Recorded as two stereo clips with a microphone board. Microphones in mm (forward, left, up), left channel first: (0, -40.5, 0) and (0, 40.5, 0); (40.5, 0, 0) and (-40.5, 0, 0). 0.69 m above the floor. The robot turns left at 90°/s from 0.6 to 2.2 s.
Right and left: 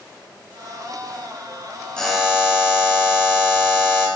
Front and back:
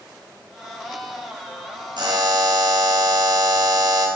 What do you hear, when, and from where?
2.0 s a buzzer: 170° right, 3 m; by 4.1 s 170° left, 3 m